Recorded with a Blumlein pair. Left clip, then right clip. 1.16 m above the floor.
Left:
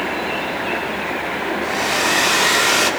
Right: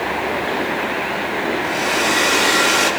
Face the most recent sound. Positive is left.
turn(degrees=20)